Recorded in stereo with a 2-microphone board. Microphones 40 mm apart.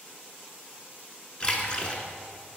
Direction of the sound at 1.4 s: 25° left (ahead or behind).